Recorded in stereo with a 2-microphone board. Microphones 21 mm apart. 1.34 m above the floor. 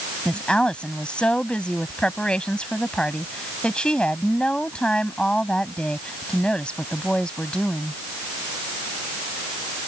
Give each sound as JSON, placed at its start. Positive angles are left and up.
{"t": 0.2, "sound": "a woman speaking", "side_deg": 45}